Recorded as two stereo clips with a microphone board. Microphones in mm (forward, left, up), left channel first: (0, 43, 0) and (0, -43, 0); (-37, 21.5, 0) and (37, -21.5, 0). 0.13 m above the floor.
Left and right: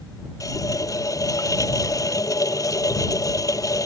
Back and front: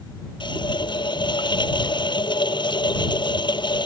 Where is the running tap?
135° left.